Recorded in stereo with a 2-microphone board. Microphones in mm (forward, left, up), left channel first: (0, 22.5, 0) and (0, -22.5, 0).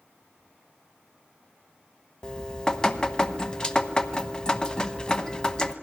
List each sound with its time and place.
2.2 s dripping: 20° left (ahead or behind), 0.9 m